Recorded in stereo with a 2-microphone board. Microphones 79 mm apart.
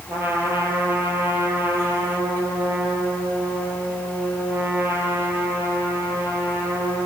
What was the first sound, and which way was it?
A trumpet, 30° right (ahead or behind).